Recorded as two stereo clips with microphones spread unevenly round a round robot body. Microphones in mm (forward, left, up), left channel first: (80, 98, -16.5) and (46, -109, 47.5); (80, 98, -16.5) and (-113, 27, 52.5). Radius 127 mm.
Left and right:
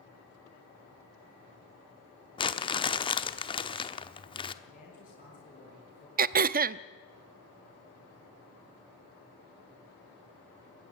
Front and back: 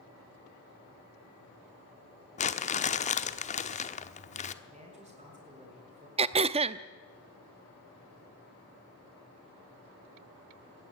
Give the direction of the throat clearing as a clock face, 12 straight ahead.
3 o'clock.